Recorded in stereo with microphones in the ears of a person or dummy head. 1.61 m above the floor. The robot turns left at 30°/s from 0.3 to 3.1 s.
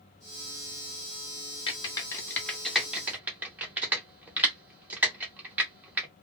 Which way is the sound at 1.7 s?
25° left (ahead or behind).